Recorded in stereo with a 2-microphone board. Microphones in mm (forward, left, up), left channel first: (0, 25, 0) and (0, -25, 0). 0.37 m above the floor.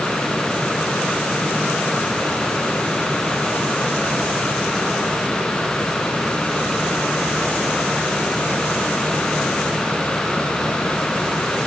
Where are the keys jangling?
I don't hear keys jangling.